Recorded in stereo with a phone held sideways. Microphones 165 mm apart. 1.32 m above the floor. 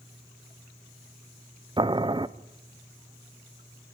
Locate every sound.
1.8 s boiling: 30° right (ahead or behind), 0.6 m